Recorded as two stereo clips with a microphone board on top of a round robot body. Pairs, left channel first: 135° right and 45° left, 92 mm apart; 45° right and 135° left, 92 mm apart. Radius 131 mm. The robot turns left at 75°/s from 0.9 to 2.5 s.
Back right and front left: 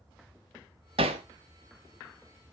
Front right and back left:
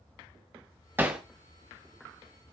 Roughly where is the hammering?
Ahead left.